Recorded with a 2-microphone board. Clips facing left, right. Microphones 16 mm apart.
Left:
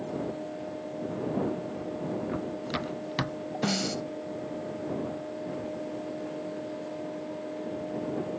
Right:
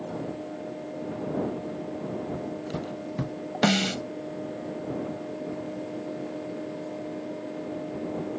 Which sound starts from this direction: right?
A snare drum, at 3.6 s.